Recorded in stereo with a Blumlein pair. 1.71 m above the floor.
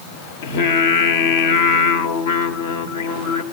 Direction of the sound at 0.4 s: 55° left.